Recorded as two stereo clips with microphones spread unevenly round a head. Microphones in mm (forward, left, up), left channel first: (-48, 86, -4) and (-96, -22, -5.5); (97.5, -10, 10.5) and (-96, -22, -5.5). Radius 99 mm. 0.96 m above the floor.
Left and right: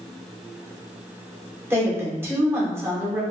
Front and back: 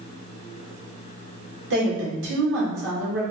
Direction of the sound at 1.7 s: 175° left.